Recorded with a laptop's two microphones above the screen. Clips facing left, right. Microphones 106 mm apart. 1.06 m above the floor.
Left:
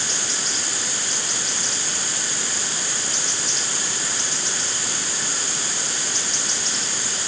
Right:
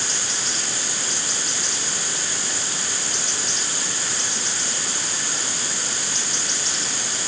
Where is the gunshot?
No gunshot in this recording.